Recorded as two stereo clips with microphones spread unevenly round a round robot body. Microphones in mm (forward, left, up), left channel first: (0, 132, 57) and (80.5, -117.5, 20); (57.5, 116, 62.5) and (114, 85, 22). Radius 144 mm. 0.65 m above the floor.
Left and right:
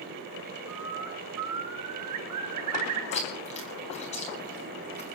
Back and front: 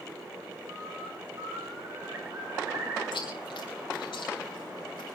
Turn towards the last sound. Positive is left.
turn(degrees=175)